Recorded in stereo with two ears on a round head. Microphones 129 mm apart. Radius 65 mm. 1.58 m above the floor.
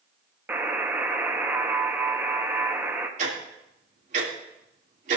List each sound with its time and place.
0.5 s a buzzer: 15° right (ahead or behind), 0.9 m
3.2 s ticking: 50° right (ahead or behind), 2.5 m